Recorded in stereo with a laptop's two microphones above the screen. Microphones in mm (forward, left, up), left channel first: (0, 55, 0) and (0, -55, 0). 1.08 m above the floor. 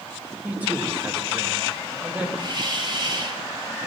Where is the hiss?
45° right (ahead or behind), 2.5 m.